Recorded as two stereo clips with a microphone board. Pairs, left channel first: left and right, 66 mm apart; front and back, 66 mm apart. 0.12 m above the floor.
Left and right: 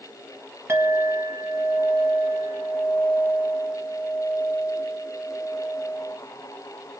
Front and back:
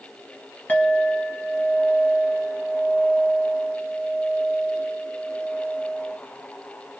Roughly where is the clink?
Ahead right.